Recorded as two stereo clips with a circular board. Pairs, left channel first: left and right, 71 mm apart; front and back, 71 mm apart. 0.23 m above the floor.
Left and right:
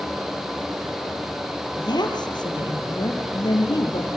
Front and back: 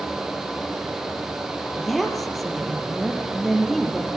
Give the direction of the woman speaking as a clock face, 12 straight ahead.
9 o'clock.